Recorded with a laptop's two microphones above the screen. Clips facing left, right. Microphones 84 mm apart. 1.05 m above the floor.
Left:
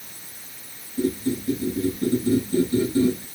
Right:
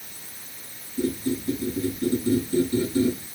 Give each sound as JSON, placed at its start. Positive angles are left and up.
{"t": 1.0, "sound": "a squeak", "side_deg": 25, "distance_m": 5.5}